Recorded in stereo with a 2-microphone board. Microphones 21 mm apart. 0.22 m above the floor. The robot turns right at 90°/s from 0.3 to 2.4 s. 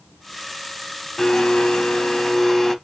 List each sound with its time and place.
1.2 s a blender: 45° left, 0.6 m; by 2.8 s 155° left, 0.6 m